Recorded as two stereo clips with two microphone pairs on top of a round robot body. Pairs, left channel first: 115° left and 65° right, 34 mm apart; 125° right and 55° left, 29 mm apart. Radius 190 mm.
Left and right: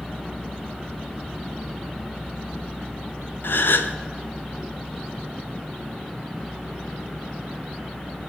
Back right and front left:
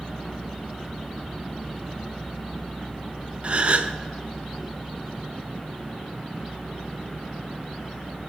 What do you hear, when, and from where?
3.4 s a gasp: 105° left, 0.6 m